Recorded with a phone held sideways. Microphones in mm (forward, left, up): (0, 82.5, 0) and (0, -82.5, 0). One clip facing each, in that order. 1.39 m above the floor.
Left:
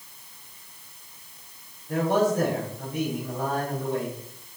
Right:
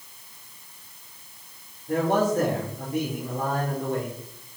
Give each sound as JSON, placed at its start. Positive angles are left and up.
{"t": 1.9, "sound": "a man speaking", "side_deg": -55, "distance_m": 4.0}